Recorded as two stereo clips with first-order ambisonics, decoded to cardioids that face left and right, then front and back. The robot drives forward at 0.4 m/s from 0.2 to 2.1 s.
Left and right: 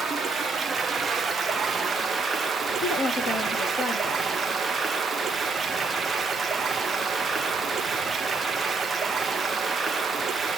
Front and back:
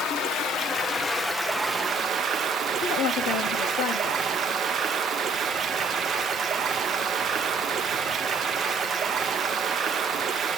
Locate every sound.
0.0 s running water: 20° right, 0.8 m; by 10.6 s 145° right, 0.7 m
2.8 s a woman speaking: 35° left, 1.2 m